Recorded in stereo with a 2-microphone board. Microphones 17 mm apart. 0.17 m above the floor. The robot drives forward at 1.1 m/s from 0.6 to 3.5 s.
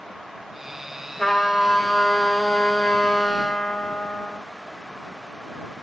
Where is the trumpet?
35° left (ahead or behind), 2 m; by 4.4 s 55° left (ahead or behind), 1.5 m.